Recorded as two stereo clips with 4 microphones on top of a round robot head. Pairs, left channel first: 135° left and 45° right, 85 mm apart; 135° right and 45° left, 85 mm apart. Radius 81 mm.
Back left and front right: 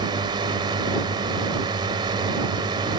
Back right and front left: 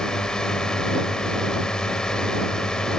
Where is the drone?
55° right.